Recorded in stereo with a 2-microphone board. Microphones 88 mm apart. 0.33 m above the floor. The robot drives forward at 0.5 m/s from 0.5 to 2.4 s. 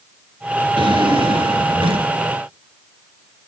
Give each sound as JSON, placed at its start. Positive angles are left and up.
{"t": 0.8, "sound": "a drawer", "side_deg": -70, "distance_m": 2.0}